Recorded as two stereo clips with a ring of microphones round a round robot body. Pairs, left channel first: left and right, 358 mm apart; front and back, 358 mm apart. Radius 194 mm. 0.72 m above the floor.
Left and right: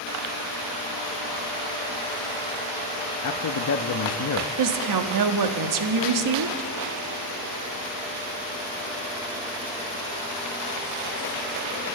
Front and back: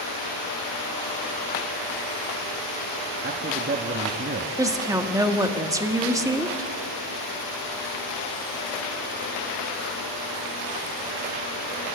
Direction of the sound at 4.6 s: 100° right.